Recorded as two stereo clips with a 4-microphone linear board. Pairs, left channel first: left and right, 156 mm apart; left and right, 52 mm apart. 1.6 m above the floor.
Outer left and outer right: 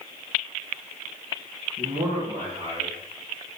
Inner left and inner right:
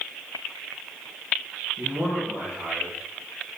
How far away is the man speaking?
About 2 m.